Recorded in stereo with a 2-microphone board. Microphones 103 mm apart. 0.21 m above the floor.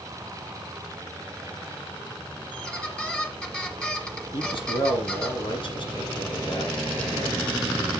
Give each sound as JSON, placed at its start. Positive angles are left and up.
{"t": 2.5, "sound": "a squeak", "side_deg": 10, "distance_m": 1.3}
{"t": 4.3, "sound": "a man speaking", "side_deg": 55, "distance_m": 2.5}